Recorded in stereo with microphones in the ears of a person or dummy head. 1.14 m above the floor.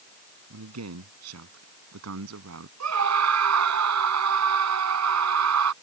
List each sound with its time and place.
0.5 s a man speaking: 85° right; by 2.7 s 75° right (ahead or behind)
2.8 s a scream: 85° right